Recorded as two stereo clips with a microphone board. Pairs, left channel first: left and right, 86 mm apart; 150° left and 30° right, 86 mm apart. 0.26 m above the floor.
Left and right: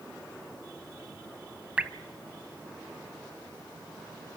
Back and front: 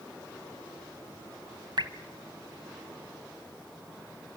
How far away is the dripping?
About 0.8 m.